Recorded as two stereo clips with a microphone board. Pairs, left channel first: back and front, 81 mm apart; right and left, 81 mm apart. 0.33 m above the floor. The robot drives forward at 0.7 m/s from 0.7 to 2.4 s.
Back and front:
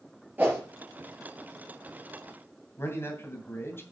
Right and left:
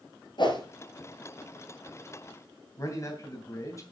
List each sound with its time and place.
0.4 s a whoosh: 70° right, 3 m
2.8 s a man speaking: 125° right, 2.5 m